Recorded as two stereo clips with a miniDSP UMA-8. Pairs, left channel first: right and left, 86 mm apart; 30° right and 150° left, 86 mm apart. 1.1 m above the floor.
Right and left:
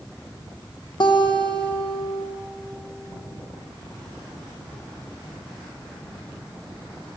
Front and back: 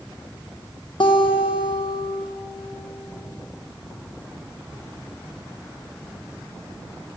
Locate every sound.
1.0 s a guitar: 55° right, 1.2 m